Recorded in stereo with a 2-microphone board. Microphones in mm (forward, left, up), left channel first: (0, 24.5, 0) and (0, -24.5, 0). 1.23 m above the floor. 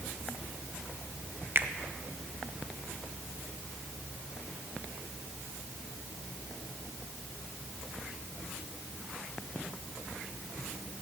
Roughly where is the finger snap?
Right.